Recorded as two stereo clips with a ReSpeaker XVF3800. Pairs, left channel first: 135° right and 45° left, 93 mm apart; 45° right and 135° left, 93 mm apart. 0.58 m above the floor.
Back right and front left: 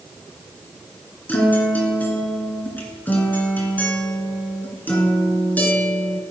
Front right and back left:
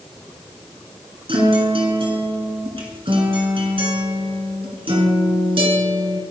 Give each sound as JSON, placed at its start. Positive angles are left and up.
{"t": 1.3, "sound": "a guitar", "azimuth_deg": 155, "distance_m": 2.5}